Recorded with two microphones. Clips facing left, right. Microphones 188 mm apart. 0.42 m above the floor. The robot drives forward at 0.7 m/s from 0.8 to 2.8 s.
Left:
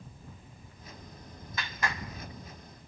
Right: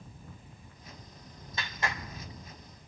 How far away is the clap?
About 1.3 m.